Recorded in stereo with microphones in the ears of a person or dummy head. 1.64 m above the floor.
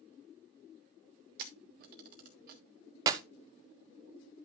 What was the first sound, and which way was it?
A camera shutter, 35° right (ahead or behind).